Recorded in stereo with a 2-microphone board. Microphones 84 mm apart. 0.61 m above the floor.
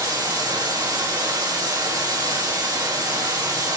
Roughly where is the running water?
Right.